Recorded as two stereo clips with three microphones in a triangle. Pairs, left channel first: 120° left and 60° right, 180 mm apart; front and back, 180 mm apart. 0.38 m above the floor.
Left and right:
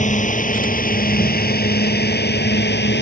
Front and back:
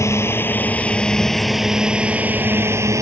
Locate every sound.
0.0 s a drone: 75° left; by 3.0 s 110° left